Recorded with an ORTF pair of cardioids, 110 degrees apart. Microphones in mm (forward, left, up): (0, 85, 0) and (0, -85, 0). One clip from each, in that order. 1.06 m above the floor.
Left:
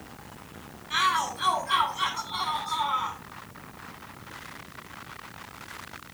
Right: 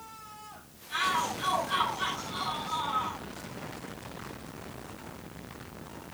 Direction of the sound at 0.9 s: 60° left.